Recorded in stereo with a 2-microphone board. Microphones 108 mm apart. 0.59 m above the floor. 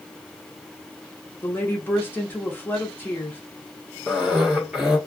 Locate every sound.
1.4 s a woman speaking: 20° left (ahead or behind), 1.1 m
4.1 s a cough: 5° right (ahead or behind), 1.3 m